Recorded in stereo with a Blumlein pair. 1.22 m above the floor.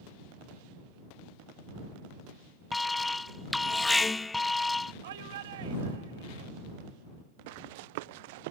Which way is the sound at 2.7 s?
10° left.